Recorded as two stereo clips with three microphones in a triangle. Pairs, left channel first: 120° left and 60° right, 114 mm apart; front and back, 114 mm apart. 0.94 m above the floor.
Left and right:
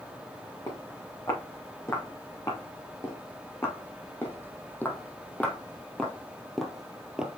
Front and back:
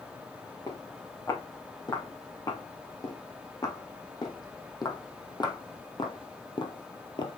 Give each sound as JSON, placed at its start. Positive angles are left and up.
{"t": 0.7, "sound": "footsteps", "azimuth_deg": 60, "distance_m": 4.0}